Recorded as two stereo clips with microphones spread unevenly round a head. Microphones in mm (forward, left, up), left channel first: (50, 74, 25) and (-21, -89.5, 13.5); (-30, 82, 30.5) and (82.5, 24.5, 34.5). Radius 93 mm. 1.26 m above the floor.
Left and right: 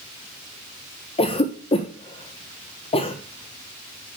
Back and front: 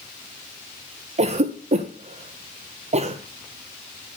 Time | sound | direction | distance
1.2 | a cough | 5° left | 1.1 m